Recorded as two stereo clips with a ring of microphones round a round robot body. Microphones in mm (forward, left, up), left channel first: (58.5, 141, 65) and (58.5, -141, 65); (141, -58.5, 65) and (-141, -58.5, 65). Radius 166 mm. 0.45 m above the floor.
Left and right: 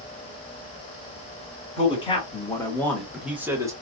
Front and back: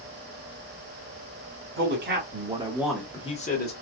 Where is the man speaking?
155° left, 1.3 m; by 3.7 s 15° right, 1.1 m.